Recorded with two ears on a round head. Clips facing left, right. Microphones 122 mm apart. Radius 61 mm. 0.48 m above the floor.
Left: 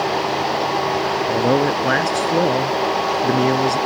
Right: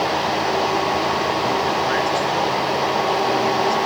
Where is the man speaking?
60° left (ahead or behind).